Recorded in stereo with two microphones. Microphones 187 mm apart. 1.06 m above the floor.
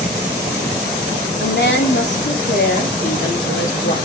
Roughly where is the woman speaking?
Left.